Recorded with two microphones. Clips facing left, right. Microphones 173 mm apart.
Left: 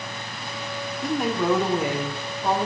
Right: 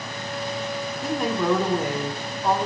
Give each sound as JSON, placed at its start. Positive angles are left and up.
{"t": 1.0, "sound": "a woman speaking", "side_deg": 0, "distance_m": 0.7}